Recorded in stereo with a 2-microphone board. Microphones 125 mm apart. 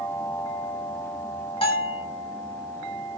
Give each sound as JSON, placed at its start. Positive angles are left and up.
{"t": 1.6, "sound": "a bell", "side_deg": 40, "distance_m": 1.7}